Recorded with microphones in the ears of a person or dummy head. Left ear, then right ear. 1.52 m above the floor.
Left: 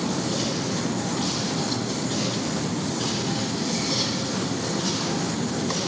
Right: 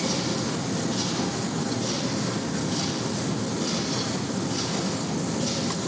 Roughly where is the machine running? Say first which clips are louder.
Left 1 dB; centre.